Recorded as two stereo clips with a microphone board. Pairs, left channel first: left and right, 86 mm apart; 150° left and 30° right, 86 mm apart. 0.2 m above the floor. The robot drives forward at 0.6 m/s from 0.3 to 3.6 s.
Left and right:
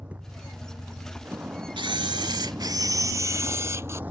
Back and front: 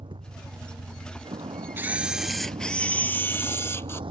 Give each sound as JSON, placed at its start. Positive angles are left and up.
{"t": 0.0, "sound": "a vehicle", "azimuth_deg": -15}
{"t": 1.8, "sound": "a camera shutter", "azimuth_deg": -95}